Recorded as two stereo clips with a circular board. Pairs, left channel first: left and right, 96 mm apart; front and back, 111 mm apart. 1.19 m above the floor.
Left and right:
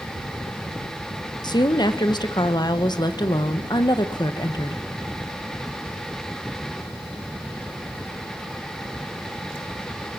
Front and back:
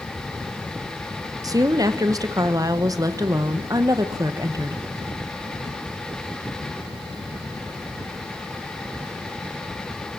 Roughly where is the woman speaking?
Behind left.